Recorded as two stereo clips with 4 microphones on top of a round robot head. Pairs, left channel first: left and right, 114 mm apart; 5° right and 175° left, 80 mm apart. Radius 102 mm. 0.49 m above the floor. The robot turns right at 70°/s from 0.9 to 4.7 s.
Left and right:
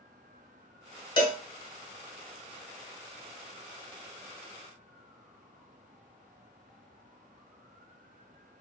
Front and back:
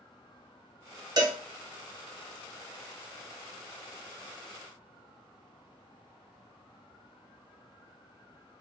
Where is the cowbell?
135° left, 1.2 m; by 1.4 s 150° left, 1.2 m.